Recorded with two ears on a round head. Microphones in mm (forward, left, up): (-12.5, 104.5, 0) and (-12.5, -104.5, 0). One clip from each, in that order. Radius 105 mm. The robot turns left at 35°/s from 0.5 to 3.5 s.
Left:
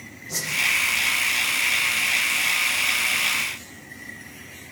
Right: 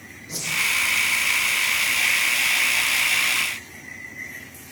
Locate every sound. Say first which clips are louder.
0.3 s a whoosh: even; 10° right (ahead or behind), 8.5 m